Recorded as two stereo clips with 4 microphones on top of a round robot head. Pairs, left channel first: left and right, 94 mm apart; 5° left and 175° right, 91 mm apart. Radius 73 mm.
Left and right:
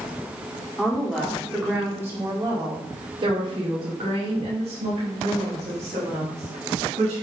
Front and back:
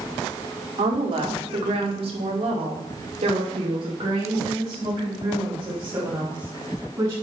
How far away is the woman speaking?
About 2 m.